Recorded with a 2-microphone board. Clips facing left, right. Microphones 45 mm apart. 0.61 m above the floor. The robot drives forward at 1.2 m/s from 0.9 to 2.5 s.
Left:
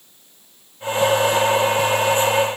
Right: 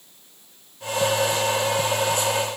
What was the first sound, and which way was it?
Only background noise.